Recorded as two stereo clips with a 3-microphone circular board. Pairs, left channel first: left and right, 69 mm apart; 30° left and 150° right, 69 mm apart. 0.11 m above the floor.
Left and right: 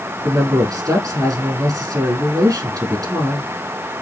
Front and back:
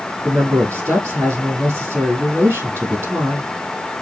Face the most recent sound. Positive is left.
turn(degrees=-95)